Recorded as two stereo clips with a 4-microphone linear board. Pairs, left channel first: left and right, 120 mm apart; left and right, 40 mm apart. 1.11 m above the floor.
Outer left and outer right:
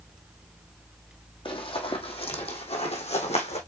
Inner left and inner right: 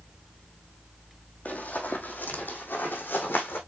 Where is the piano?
I don't hear a piano.